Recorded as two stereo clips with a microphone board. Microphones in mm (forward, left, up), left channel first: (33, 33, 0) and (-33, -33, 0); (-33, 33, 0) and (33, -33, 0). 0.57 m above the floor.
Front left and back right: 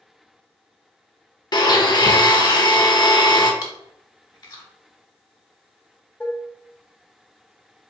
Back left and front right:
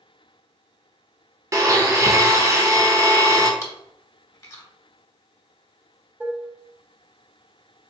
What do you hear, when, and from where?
1.5 s a blender: 10° left, 0.6 m
3.6 s chewing: 80° left, 0.9 m
6.2 s dishes clattering: 5° right, 0.5 m